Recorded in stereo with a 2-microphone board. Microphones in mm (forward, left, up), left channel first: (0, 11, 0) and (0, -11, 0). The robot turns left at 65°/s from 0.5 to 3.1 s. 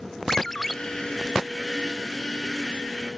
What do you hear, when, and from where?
0.3 s a ringtone: 20° left (ahead or behind); by 0.7 s 5° left (ahead or behind)